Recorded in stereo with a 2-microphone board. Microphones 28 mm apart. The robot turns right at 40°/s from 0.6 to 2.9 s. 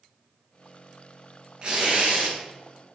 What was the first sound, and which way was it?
Tearing paper, 25° right (ahead or behind).